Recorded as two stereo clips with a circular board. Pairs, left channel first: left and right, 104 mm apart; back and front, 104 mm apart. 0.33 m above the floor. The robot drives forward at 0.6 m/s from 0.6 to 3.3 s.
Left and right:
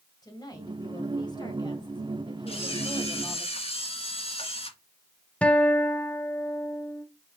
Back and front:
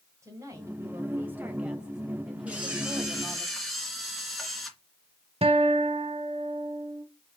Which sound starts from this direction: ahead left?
A woman speaking, at 0.2 s.